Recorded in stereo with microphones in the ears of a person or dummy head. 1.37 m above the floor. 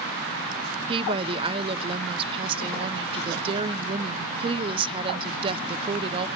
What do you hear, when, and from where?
0.9 s a woman speaking: 25° right (ahead or behind), 0.8 m